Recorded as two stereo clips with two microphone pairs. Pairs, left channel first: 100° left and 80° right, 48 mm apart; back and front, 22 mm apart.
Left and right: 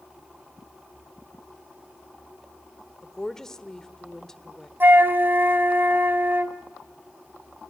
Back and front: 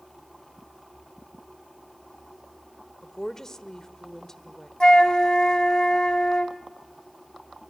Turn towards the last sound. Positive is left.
turn(degrees=-125)